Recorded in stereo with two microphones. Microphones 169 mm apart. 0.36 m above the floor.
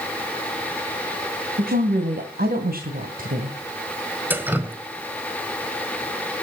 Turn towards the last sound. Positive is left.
turn(degrees=-10)  # may be behind; listen again after turning